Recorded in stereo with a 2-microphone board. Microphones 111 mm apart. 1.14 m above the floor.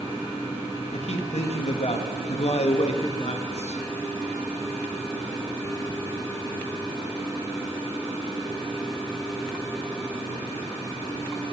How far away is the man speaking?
About 1.2 m.